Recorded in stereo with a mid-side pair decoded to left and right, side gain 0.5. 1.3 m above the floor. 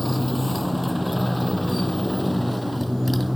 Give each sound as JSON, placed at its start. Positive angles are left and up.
{"t": 0.0, "sound": "a motorcycle", "azimuth_deg": 10}